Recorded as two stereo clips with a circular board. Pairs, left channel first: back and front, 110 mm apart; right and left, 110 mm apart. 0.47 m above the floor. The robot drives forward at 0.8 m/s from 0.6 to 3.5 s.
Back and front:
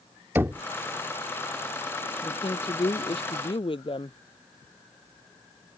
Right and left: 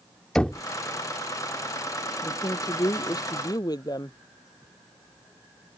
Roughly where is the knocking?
Ahead right.